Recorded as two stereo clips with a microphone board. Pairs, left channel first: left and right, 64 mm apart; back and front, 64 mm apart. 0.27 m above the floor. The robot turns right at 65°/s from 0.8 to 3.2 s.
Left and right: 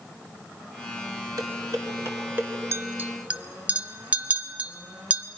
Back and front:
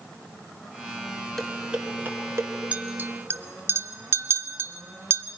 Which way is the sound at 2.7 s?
60° right.